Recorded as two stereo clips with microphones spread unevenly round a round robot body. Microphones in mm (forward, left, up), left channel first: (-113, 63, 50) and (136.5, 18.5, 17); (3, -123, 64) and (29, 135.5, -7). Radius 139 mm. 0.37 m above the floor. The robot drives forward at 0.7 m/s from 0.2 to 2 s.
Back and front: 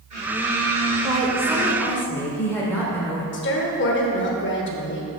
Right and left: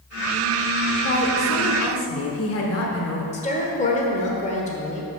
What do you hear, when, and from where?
1.0 s a woman speaking: 55° right, 1.4 m; by 3.2 s 105° right, 1.3 m
3.3 s a woman speaking: 165° right, 1.3 m